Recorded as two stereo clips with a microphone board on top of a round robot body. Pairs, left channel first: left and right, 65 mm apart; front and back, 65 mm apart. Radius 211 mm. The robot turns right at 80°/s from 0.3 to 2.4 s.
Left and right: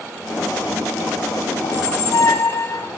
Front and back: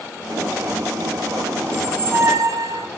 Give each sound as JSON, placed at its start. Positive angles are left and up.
{"t": 1.6, "sound": "a squeak", "azimuth_deg": 85, "distance_m": 0.7}